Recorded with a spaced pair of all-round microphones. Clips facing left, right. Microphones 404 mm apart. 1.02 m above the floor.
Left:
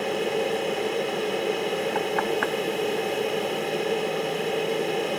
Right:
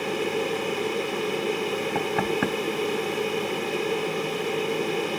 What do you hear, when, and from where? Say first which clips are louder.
0.0 s a fan: left 1 dB; 15° right (ahead or behind)
1.9 s knocking: even; 50° right (ahead or behind)